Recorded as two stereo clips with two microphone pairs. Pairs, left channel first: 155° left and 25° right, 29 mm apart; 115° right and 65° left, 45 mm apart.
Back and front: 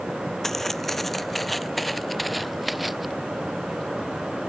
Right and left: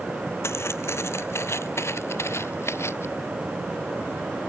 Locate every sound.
0.4 s footsteps: 125° right; by 3.1 s 110° right